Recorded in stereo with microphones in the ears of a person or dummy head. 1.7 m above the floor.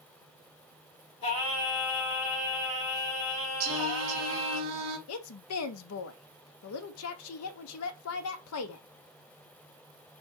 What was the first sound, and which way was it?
Singing, 35° left (ahead or behind).